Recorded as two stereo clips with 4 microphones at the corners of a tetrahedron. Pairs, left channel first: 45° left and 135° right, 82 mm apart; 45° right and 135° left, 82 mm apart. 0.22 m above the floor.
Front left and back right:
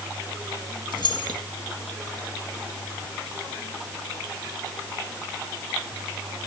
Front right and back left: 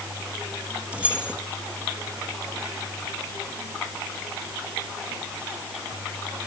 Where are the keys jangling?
60° left, 3 m.